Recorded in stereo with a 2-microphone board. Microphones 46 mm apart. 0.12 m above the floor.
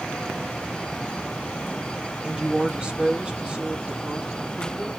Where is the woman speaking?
20° right (ahead or behind), 3 m.